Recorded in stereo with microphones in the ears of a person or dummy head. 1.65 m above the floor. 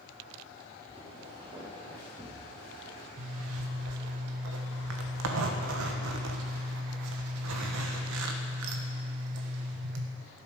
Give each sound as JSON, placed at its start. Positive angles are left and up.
{"t": 0.9, "sound": "footsteps", "side_deg": -20, "distance_m": 7.0}
{"t": 3.2, "sound": "a zipper", "side_deg": -80, "distance_m": 1.6}